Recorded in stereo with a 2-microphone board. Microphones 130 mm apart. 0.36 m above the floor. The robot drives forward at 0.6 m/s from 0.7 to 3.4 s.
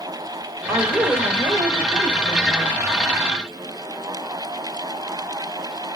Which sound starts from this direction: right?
A woman speaking, at 0.7 s.